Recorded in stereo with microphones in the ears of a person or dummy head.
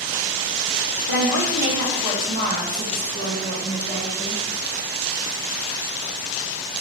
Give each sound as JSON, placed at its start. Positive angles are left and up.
{"t": 1.1, "sound": "a woman speaking", "side_deg": 65, "distance_m": 0.7}